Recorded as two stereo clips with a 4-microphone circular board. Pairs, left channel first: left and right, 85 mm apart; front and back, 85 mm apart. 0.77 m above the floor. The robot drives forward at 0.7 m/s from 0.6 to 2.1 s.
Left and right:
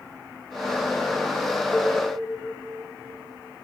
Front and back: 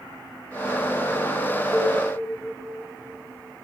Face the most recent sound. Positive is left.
turn(degrees=170)